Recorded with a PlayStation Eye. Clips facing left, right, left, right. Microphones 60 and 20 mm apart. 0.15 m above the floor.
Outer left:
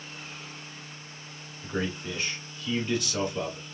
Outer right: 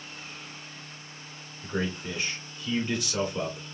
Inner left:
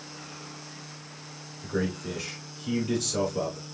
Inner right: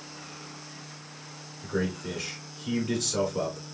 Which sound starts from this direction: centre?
A man speaking, at 1.6 s.